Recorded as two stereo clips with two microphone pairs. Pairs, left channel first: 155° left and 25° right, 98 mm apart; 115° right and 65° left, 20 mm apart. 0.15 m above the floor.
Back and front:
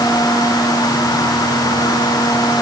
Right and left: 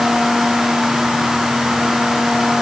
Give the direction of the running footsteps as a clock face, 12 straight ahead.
No running footsteps in this recording.